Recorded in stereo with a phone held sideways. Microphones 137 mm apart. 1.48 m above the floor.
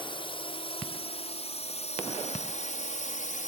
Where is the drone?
40° left (ahead or behind); by 3.5 s 70° left (ahead or behind).